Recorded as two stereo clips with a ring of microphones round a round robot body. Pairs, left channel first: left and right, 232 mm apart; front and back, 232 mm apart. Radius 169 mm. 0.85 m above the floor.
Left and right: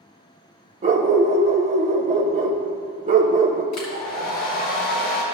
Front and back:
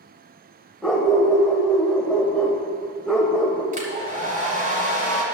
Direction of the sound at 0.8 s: 90° right.